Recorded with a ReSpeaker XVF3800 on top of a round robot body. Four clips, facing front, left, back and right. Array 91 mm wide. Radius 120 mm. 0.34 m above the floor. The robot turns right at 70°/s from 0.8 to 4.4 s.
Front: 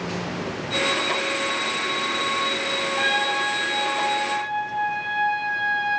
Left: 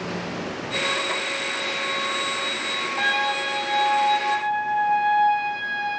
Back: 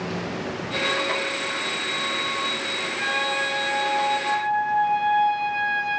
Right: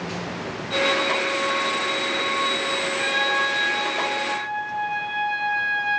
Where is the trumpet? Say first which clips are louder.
Even, front 2 dB; 40° left, 1.3 m; by 6.0 s 140° left, 1.3 m.